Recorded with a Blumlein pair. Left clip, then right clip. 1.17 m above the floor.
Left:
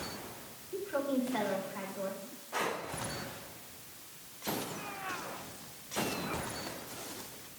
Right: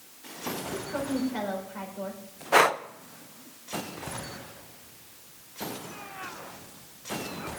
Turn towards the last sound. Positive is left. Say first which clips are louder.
# right 14 dB
turn(degrees=-50)